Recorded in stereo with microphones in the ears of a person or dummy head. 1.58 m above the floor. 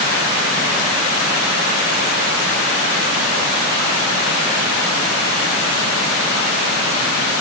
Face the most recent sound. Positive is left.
No sound to turn to.